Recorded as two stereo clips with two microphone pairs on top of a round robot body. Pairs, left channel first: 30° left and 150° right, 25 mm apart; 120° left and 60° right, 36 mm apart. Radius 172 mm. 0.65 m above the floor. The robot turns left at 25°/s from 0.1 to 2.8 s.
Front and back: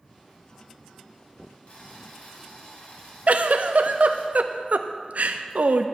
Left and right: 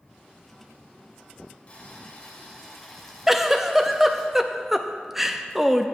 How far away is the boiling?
About 2 m.